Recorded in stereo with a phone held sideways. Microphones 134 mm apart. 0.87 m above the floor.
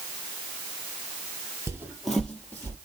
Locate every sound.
1.7 s footsteps: 20° right (ahead or behind), 0.9 m; by 2.8 s 15° left (ahead or behind), 1.7 m